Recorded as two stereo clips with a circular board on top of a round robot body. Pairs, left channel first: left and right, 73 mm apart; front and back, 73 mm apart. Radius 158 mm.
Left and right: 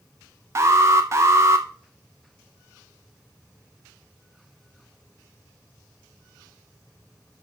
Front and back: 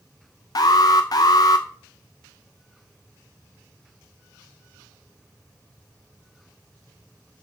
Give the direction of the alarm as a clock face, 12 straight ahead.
1 o'clock.